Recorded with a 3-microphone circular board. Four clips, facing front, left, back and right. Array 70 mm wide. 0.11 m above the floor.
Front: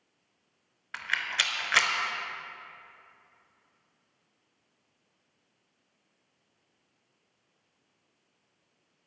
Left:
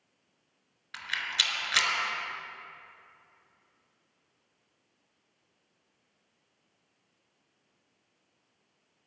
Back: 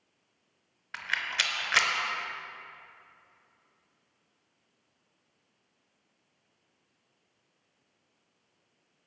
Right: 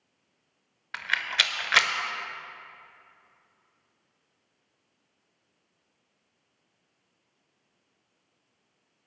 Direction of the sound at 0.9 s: 85° right.